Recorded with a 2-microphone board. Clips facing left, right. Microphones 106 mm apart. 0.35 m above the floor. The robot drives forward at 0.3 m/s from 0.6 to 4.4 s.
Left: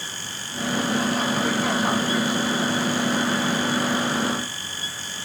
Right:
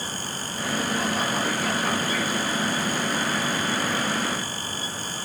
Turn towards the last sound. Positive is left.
No sound to turn to.